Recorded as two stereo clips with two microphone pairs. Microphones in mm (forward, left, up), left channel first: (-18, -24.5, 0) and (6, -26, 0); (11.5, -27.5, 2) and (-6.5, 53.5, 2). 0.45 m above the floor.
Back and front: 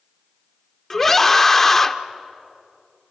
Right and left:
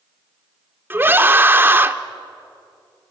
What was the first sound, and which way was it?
A scream, 130° left.